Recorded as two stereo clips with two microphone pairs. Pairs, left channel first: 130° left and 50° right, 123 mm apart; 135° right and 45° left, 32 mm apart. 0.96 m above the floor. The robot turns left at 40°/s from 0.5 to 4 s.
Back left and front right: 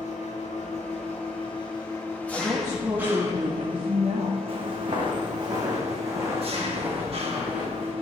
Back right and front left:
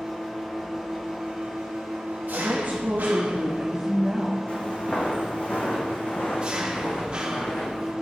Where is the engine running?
120° left, 1.3 m; by 8.0 s 20° right, 1.3 m.